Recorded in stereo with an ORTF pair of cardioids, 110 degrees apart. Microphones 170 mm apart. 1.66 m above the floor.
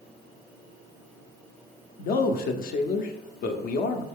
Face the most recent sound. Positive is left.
turn(degrees=60)